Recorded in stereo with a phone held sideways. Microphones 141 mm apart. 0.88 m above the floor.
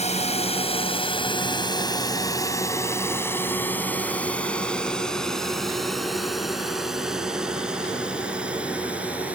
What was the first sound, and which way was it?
A drone, 50° left (ahead or behind).